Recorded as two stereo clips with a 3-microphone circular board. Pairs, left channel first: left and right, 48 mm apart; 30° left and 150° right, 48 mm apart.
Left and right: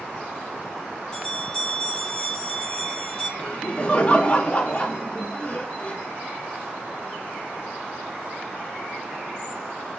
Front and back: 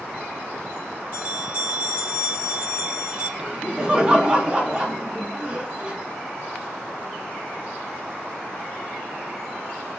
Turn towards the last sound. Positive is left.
turn(degrees=145)